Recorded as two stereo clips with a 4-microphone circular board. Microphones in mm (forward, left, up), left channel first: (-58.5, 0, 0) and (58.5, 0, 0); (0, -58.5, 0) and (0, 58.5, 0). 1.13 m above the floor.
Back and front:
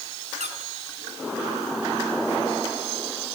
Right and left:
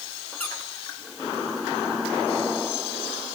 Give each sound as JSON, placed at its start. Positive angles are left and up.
{"t": 0.4, "sound": "a squeak", "azimuth_deg": -15, "distance_m": 3.5}